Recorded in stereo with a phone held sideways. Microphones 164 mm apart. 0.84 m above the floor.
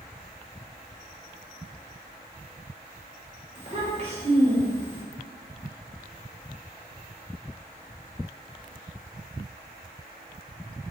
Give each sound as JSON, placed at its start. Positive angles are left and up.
{"t": 3.5, "sound": "a child speaking", "side_deg": -40, "distance_m": 1.7}